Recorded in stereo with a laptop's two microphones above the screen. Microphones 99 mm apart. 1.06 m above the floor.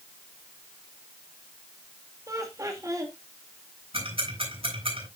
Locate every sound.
2.3 s laughter: 35° right (ahead or behind), 2.5 m
3.9 s ticking: 70° right (ahead or behind), 7.5 m